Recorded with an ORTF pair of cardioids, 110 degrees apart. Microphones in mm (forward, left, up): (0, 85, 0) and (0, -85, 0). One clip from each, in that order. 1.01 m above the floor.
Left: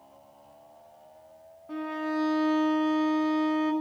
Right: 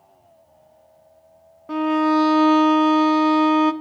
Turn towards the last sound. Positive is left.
turn(degrees=-55)